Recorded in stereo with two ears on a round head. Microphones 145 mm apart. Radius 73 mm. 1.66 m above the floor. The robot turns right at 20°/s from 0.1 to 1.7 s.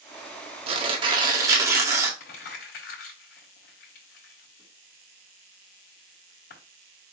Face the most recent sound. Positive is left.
turn(degrees=65)  # may be behind; listen again after turning